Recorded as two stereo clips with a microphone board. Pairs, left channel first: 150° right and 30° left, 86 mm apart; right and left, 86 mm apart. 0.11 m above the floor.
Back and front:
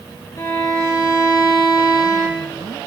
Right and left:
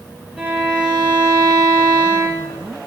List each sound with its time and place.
0.4 s a violin: 160° left, 3.5 m